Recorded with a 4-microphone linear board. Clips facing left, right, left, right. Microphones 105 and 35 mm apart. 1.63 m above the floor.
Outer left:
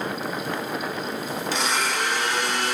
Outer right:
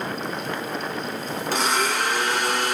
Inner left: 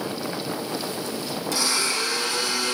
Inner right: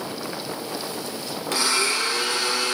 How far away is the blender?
About 2.0 m.